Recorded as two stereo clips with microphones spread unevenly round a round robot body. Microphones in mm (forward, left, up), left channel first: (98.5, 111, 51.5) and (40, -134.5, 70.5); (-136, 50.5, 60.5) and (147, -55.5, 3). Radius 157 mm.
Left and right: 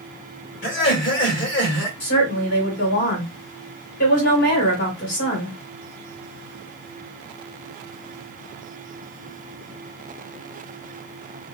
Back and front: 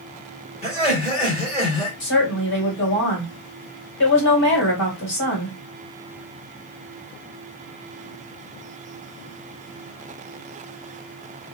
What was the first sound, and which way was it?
Laughter, 85° left.